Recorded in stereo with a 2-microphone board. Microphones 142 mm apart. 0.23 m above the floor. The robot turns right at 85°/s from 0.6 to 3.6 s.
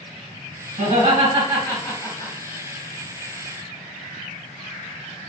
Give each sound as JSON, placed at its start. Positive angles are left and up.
{"t": 0.8, "sound": "laughter", "side_deg": -50, "distance_m": 2.0}